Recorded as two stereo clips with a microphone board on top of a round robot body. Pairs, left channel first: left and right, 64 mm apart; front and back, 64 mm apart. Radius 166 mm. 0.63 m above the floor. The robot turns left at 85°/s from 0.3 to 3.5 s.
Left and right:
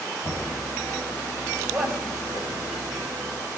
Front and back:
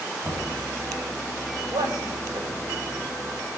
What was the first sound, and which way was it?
Knocking, 95° right.